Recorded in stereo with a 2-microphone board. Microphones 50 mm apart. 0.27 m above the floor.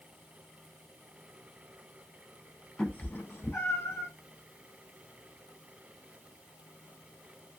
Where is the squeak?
I don't hear a squeak.